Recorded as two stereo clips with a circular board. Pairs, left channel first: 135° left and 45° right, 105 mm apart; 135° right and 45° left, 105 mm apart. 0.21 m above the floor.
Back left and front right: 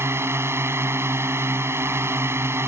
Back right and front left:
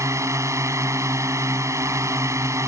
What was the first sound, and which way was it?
A drone, 5° left.